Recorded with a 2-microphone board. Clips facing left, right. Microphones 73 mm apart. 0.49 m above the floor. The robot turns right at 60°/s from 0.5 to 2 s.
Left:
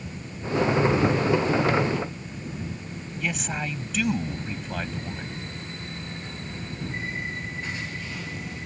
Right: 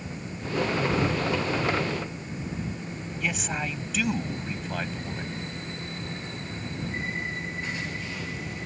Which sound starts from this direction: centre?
A man speaking, at 3.2 s.